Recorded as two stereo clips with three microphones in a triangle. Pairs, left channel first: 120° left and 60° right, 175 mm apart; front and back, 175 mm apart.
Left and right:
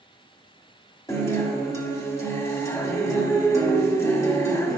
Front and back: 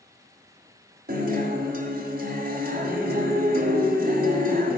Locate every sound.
1.1 s a guitar: 170° right, 1.5 m